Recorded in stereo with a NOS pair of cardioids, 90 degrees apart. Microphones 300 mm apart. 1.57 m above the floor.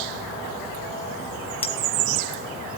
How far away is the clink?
About 1.6 m.